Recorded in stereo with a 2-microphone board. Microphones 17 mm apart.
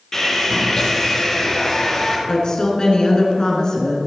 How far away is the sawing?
About 3.5 m.